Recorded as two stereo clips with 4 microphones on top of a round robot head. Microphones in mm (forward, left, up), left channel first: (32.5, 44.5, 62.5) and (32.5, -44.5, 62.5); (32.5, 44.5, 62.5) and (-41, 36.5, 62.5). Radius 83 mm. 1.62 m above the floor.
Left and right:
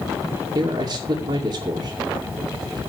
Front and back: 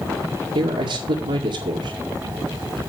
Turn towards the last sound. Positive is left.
turn(degrees=-155)